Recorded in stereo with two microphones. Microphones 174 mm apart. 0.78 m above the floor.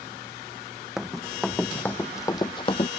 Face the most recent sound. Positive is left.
turn(degrees=35)  # may be behind; listen again after turning